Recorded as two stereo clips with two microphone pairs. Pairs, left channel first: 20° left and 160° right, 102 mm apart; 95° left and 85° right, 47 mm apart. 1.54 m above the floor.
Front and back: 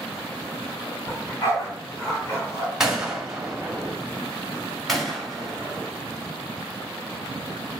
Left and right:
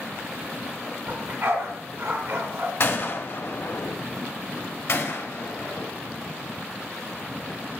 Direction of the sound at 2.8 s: 115° left.